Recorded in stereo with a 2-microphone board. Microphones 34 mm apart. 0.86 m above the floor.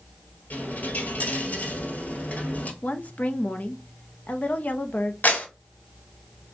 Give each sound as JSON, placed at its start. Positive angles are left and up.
{"t": 0.5, "sound": "a dropped coin", "side_deg": 55, "distance_m": 1.3}
{"t": 2.8, "sound": "a woman speaking", "side_deg": 45, "distance_m": 0.6}
{"t": 5.2, "sound": "a clap", "side_deg": 65, "distance_m": 1.4}